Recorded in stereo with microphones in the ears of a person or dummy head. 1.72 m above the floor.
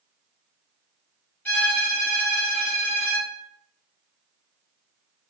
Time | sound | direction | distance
1.4 | a violin | 10° left (ahead or behind) | 1.2 m